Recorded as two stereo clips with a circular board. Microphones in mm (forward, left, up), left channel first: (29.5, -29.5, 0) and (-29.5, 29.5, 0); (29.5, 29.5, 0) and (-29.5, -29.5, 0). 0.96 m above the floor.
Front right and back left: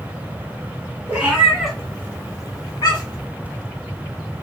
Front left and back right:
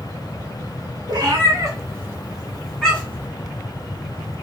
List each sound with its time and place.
1.1 s a cat meowing: 155° right, 1.4 m; by 3.3 s 25° right, 1.6 m